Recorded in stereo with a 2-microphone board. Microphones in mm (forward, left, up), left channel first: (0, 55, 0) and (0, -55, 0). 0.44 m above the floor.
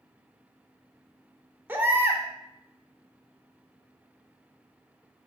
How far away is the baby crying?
About 0.5 m.